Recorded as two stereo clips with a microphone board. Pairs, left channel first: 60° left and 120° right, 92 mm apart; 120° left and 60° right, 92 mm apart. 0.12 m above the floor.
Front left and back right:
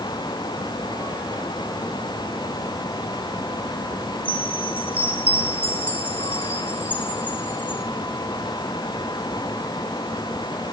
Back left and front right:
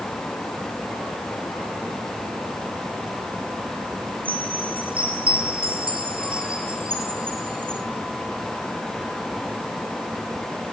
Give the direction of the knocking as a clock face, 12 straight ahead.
No knocking in this recording.